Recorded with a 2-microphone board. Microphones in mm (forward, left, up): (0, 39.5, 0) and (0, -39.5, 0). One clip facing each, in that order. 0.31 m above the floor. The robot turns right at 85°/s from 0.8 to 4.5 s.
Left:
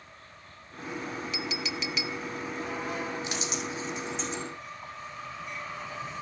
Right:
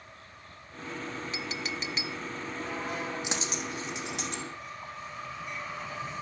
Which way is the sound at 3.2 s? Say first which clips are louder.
Left 1 dB; 15° right (ahead or behind).